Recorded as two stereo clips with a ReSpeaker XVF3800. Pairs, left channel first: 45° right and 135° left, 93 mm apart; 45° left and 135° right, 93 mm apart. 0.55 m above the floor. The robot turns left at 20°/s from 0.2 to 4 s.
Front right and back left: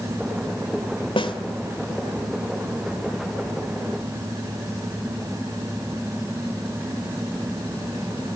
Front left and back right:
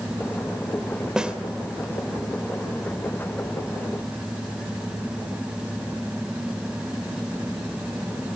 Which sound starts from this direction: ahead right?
A snare drum, at 1.2 s.